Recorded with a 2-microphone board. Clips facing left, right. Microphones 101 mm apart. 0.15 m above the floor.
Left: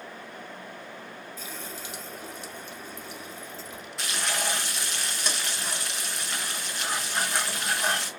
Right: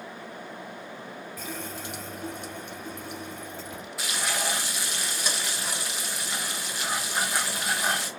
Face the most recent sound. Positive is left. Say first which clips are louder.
# even
turn(degrees=-5)  # may be behind; listen again after turning